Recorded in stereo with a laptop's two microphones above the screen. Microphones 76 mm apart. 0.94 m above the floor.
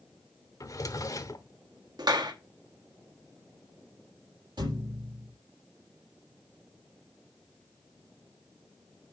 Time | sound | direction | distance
0.6 | a drawer | 50° left (ahead or behind) | 0.9 m
2.0 | a clap | 65° right (ahead or behind) | 1.3 m
4.6 | a thud | 75° right (ahead or behind) | 6 m